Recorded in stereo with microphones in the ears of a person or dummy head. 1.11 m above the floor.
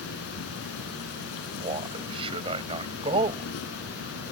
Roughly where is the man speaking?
Right.